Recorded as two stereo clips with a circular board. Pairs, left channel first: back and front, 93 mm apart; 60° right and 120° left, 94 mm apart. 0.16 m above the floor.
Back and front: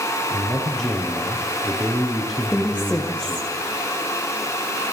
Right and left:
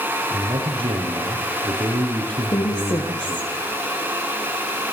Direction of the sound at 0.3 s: 90° left.